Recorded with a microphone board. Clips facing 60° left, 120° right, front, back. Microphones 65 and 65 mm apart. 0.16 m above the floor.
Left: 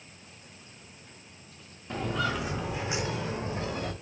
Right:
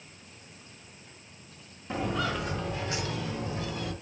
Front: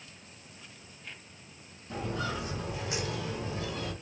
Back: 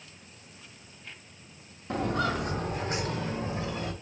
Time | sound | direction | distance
1.9 | footsteps | 160° left | 1.2 m